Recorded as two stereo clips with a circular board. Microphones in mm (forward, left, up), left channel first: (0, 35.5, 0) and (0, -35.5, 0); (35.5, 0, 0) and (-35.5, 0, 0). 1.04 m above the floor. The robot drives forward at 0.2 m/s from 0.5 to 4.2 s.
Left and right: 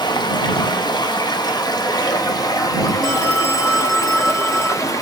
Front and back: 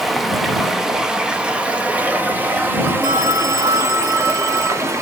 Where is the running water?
90° left, 0.9 m; by 5.0 s 130° left, 1.2 m.